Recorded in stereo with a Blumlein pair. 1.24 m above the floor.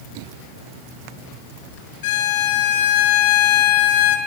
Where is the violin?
55° left, 6 m.